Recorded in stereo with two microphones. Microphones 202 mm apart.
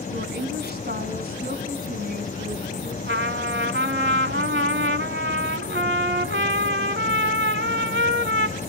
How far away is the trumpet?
About 0.9 m.